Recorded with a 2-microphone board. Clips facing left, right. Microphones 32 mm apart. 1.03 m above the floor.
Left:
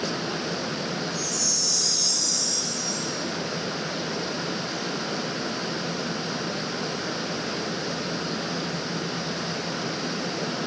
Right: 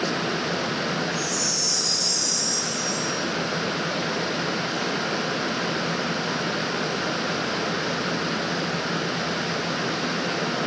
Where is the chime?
70° left (ahead or behind), 1.5 m.